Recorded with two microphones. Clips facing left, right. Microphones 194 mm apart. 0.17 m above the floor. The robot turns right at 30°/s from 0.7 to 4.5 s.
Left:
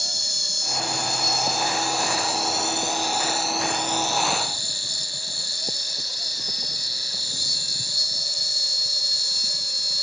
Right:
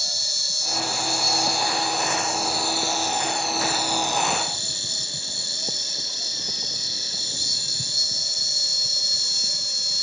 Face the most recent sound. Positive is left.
turn(degrees=-150)